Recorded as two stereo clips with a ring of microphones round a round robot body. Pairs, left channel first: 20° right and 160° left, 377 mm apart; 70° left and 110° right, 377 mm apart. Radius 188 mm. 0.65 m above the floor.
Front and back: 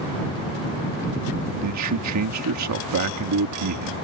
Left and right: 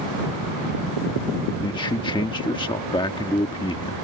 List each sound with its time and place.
1.6 s a man speaking: 140° left